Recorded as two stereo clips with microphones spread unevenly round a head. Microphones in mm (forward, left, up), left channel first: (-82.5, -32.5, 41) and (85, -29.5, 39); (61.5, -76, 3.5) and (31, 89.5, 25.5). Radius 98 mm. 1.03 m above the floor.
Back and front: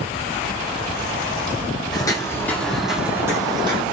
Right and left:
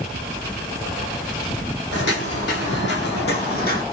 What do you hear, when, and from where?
1.9 s footsteps: 115° right, 2 m; by 3.8 s 50° right, 1.7 m